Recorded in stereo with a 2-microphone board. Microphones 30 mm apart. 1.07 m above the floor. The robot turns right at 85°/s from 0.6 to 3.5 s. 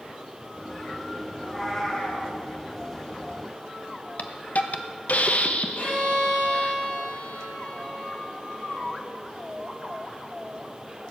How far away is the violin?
About 6 m.